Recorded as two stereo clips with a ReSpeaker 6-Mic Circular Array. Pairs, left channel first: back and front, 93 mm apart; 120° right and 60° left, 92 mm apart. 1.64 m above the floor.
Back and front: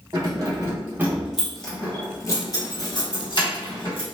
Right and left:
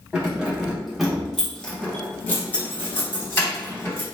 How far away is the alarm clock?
No alarm clock in this recording.